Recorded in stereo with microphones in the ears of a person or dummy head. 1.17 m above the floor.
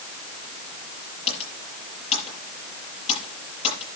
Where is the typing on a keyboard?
40° left (ahead or behind), 7 m.